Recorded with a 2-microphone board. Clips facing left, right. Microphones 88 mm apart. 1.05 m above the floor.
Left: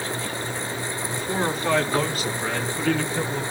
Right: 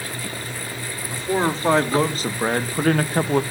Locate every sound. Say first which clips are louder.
1.1 s a man speaking: right 5 dB; 30° right (ahead or behind), 3 m; by 3.4 s 60° right (ahead or behind), 1.1 m